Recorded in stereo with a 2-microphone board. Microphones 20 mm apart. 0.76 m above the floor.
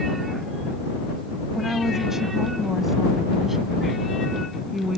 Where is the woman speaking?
20° right (ahead or behind); by 5.0 s 15° right (ahead or behind).